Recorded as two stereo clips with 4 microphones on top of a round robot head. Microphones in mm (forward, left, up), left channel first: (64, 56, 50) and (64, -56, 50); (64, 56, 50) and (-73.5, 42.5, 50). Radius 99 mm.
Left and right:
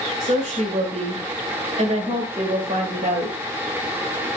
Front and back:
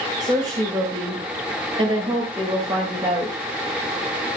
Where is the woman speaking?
115° right, 2.5 m.